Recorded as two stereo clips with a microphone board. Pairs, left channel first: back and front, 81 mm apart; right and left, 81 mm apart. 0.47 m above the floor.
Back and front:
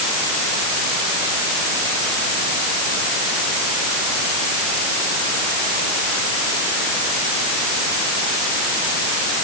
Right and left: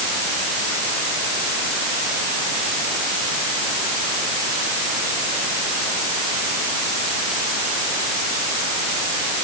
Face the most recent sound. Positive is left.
No sound to turn to.